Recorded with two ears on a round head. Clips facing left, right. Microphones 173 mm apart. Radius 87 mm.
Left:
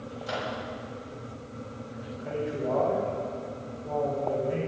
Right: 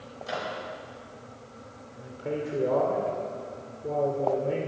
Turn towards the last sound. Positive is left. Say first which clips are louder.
# right 1 dB
turn(degrees=-55)  # may be behind; listen again after turning